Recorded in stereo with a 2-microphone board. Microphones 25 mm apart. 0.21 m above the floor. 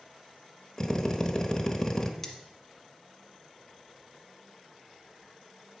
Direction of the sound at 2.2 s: 10° left (ahead or behind).